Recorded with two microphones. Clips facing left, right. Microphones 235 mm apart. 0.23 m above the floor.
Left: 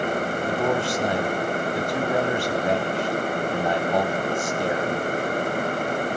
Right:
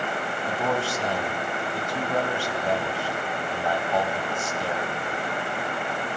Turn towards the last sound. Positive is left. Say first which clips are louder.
# left 2 dB
turn(degrees=20)  # may be behind; listen again after turning